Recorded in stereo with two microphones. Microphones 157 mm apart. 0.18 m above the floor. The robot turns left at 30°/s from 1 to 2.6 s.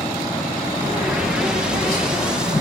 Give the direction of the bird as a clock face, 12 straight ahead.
8 o'clock.